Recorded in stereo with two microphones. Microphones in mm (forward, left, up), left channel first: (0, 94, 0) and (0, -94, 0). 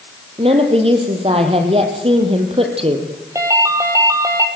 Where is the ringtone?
15° right (ahead or behind), 2.5 m.